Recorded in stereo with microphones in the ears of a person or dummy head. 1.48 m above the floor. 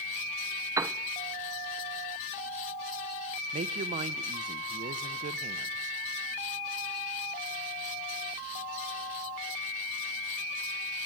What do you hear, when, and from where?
0.8 s a piano: 10° right (ahead or behind), 0.6 m
3.5 s a woman speaking: 35° right (ahead or behind), 1.1 m